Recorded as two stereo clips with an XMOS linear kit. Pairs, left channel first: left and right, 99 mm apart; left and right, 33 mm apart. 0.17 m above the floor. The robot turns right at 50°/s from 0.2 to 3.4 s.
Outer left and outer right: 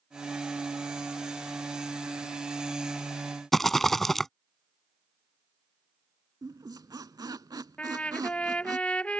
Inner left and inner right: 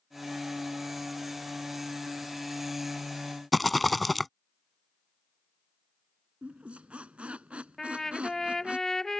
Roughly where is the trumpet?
Centre.